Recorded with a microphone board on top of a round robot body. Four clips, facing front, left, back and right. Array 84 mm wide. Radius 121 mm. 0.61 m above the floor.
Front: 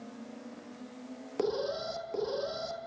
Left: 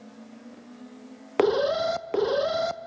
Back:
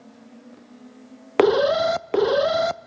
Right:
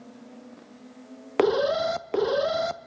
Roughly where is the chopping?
I don't hear chopping.